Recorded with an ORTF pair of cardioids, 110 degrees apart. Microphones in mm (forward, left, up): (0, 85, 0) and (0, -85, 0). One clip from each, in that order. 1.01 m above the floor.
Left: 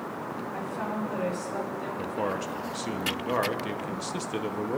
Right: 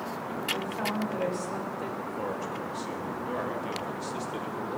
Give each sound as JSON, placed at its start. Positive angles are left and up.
{"t": 0.5, "sound": "a woman speaking", "azimuth_deg": -20, "distance_m": 4.0}
{"t": 2.0, "sound": "a man speaking", "azimuth_deg": 35, "distance_m": 0.9}